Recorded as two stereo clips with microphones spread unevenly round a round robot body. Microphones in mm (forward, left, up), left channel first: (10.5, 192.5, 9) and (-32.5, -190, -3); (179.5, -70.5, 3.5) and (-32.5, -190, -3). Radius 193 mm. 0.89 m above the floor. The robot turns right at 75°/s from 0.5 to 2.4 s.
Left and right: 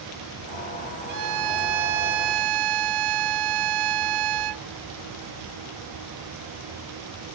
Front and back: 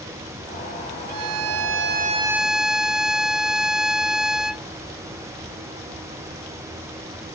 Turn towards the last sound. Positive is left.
turn(degrees=-60)